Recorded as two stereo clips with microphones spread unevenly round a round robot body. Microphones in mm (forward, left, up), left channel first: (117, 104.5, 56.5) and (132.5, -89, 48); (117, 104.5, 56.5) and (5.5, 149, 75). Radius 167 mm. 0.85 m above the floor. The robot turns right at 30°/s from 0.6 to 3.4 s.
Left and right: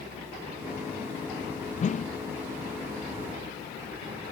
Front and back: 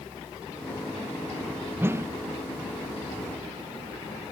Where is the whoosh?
85° left; by 2.2 s 95° left.